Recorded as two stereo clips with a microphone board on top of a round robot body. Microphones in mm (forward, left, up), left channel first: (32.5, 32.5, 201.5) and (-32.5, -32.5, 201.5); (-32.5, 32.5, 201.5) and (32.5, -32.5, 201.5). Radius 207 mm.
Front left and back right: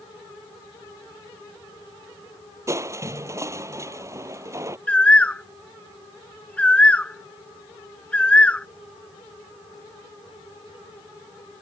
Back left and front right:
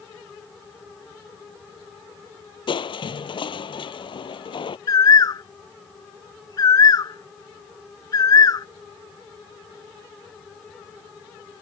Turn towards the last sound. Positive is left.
turn(degrees=115)